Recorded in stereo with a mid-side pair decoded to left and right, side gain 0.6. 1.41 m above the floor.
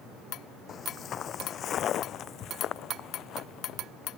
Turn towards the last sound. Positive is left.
turn(degrees=55)